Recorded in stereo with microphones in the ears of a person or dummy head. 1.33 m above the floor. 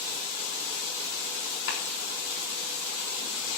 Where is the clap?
75° left (ahead or behind), 4 m.